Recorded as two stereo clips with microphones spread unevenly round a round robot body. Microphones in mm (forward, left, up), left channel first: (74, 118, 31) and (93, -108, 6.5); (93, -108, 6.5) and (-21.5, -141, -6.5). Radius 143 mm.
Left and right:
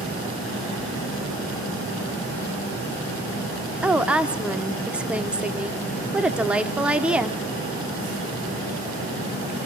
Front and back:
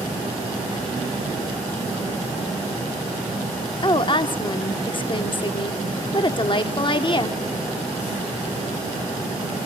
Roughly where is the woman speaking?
Ahead.